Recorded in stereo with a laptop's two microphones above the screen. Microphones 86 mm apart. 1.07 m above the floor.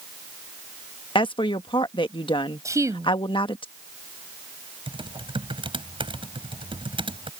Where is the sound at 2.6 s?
35° right (ahead or behind).